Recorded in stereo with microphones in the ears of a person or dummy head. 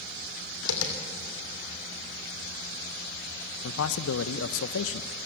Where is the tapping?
75° left (ahead or behind), 3 m.